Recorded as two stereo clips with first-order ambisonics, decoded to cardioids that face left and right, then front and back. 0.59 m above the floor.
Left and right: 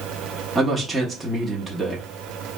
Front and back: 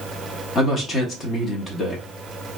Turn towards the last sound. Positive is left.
turn(degrees=-5)